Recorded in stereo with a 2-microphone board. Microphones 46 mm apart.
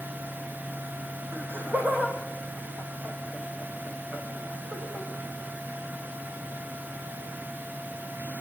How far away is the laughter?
About 5 m.